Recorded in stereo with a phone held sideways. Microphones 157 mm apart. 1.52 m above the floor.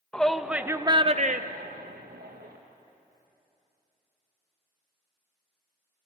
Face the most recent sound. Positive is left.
turn(degrees=-70)  # may be behind; listen again after turning